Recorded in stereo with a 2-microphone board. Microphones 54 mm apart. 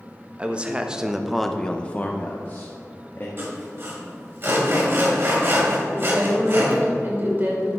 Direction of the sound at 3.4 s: 45° right (ahead or behind).